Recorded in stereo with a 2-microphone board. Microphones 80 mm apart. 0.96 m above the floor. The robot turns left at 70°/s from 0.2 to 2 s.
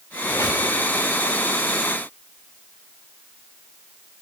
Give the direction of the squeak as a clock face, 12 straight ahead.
7 o'clock.